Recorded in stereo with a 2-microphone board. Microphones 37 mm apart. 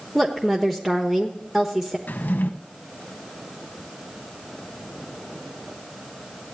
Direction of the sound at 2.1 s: 65° left (ahead or behind).